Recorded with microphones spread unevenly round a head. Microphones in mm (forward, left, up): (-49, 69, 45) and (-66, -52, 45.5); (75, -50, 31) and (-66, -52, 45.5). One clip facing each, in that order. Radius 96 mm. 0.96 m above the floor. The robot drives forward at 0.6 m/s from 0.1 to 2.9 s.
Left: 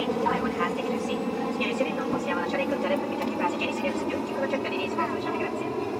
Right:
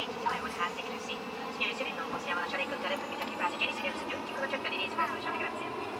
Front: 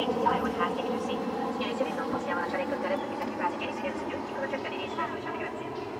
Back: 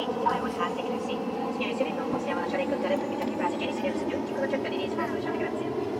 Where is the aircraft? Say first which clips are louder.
Left 9 dB, front 1 dB; 85° left; by 6.0 s 130° left.